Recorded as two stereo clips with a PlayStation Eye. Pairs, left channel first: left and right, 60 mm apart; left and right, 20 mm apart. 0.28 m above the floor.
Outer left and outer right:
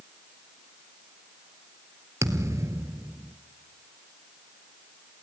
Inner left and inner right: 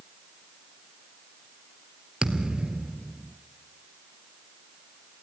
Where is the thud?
55° right (ahead or behind), 1.6 m.